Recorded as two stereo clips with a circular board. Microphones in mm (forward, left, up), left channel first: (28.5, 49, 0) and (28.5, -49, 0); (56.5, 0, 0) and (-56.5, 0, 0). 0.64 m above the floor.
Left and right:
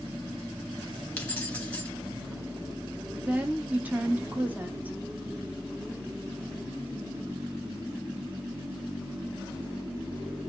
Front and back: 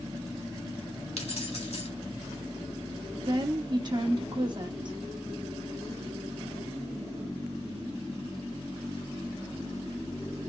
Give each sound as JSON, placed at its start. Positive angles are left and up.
{"t": 1.2, "sound": "keys jangling", "azimuth_deg": 15, "distance_m": 1.1}
{"t": 3.2, "sound": "a woman speaking", "azimuth_deg": -155, "distance_m": 0.9}